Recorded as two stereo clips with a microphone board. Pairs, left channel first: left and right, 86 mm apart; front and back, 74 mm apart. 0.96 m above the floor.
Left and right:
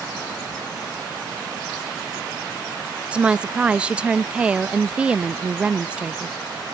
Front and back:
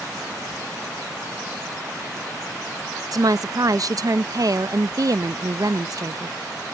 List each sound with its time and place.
3.1 s a woman speaking: 165° right